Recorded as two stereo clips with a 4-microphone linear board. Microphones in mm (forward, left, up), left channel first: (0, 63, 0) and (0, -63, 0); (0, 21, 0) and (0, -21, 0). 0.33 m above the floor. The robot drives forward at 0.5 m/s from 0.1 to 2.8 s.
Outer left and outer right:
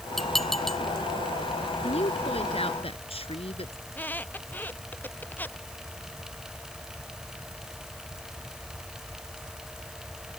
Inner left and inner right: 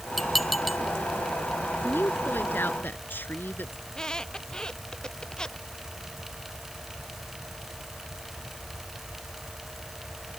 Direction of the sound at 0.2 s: Centre (ahead or behind).